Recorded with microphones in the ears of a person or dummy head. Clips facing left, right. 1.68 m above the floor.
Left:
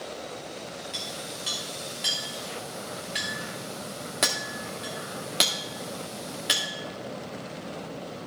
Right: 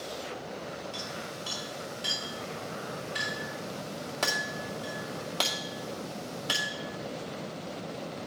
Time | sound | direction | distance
0.9 | a clink | 30° left (ahead or behind) | 2 m